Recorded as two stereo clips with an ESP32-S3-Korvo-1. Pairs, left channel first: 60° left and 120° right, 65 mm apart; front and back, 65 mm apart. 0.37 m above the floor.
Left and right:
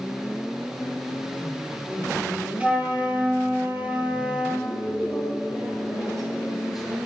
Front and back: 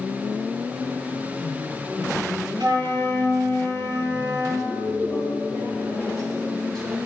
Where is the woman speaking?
155° left, 5.5 m.